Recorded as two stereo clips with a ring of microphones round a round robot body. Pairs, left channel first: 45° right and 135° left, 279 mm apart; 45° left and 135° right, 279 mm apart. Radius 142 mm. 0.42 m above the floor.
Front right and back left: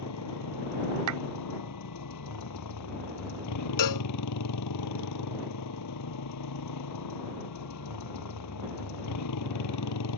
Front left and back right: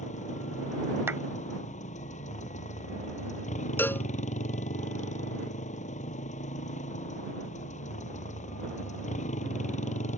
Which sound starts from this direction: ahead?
A motorcycle, at 0.0 s.